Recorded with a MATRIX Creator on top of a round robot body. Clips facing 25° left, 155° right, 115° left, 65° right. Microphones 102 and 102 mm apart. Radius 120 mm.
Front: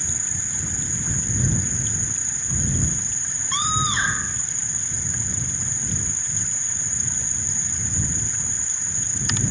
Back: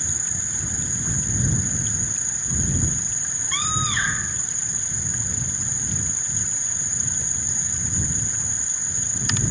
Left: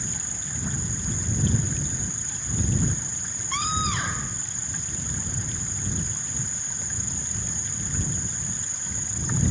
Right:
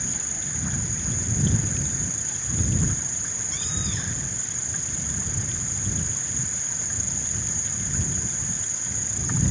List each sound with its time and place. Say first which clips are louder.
0.0 s an insect: even, right 1 dB; 80° right
3.5 s a scream: front 3 dB, left 9 dB; 90° left